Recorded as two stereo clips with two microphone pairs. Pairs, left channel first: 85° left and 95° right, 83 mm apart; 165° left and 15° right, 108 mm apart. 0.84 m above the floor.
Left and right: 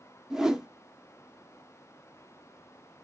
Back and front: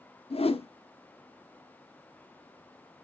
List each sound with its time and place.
0.3 s a whoosh: 175° right, 0.7 m